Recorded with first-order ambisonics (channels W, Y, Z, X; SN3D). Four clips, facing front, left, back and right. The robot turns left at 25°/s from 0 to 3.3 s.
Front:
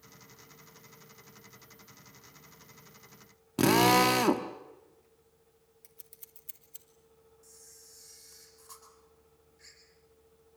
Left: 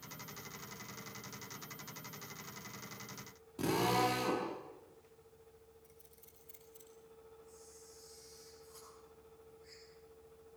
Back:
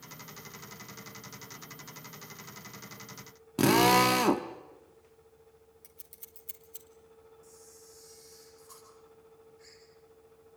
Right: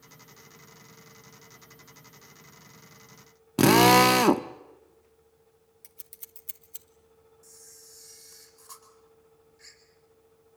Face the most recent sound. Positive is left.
turn(degrees=-75)